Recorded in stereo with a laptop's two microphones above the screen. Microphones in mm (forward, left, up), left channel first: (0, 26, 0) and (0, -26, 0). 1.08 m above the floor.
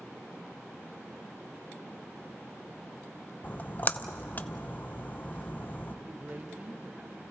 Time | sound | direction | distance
3.4 | a splash | 35° left (ahead or behind) | 0.7 m
6.0 | a man speaking | 35° right (ahead or behind) | 1.3 m